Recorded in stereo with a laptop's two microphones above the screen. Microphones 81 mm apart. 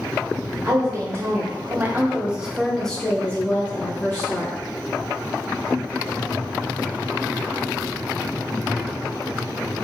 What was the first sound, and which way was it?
A woman speaking, 35° right (ahead or behind).